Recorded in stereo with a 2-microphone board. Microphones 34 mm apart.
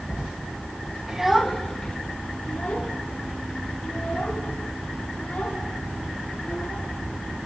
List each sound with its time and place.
1.1 s a child speaking: 15° right (ahead or behind), 1.4 m; by 6.8 s 60° left (ahead or behind), 8.5 m